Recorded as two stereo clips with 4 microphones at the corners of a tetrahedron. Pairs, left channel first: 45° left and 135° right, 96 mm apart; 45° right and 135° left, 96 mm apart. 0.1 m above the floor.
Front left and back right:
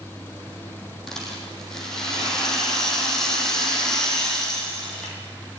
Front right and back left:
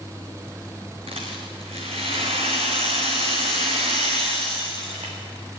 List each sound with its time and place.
1.1 s a rattle: 130° left, 4.5 m